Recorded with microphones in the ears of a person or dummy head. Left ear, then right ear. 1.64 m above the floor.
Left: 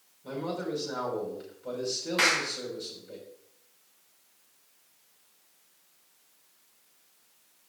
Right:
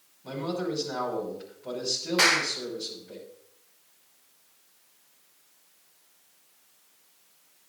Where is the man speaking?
10° left (ahead or behind), 6 m.